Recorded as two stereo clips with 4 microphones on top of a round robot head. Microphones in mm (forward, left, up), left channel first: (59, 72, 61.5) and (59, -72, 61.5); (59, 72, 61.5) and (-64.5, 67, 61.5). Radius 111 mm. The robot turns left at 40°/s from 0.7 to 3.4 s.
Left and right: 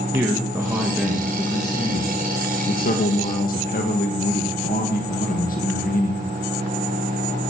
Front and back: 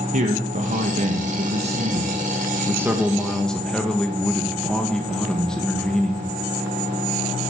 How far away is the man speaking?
About 1.5 m.